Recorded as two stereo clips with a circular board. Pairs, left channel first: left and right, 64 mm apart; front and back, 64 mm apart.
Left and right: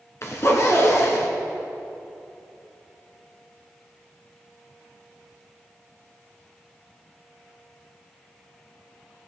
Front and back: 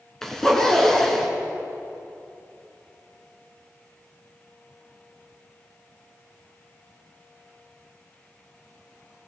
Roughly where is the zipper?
Left.